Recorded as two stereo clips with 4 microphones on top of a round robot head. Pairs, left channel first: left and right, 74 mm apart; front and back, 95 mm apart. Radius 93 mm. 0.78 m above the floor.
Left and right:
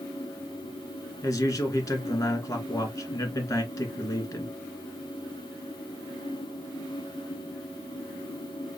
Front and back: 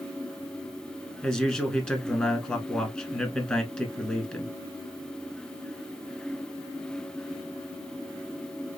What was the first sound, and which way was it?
A man speaking, 70° left.